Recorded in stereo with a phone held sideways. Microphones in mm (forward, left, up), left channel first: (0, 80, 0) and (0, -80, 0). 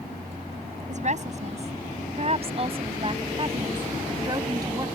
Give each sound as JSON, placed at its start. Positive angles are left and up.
{"t": 0.9, "sound": "a woman speaking", "side_deg": -50}